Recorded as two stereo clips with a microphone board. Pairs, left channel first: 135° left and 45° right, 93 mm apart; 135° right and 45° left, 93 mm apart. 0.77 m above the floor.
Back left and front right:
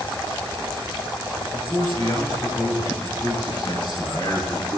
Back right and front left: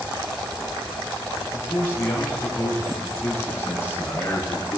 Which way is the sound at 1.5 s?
165° left.